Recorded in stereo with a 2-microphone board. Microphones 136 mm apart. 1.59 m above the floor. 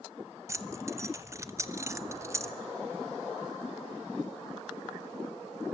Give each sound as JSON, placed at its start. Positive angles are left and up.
{"t": 0.5, "sound": "keys jangling", "side_deg": -25, "distance_m": 0.9}